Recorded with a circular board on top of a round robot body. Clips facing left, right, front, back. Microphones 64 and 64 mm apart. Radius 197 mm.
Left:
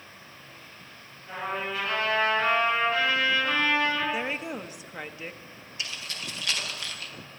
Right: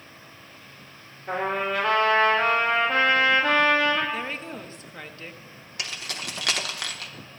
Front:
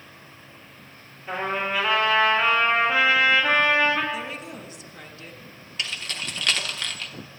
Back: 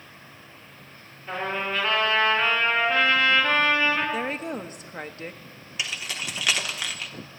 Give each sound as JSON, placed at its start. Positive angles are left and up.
{"t": 1.3, "sound": "a trumpet", "azimuth_deg": -80, "distance_m": 6.0}
{"t": 4.1, "sound": "a woman speaking", "azimuth_deg": 160, "distance_m": 1.3}
{"t": 5.8, "sound": "keys jangling", "azimuth_deg": -100, "distance_m": 1.3}